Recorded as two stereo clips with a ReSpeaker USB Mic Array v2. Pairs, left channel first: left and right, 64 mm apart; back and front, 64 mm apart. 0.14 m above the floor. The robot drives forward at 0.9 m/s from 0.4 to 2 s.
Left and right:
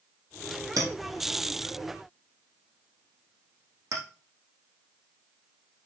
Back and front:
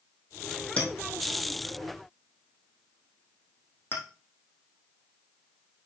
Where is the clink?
110° right, 4 m; by 4.0 s 125° right, 4.5 m.